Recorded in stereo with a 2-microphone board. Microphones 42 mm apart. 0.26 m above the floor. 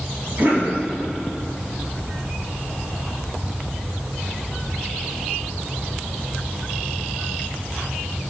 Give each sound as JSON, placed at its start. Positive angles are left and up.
{"t": 0.4, "sound": "a cough", "side_deg": -45, "distance_m": 2.5}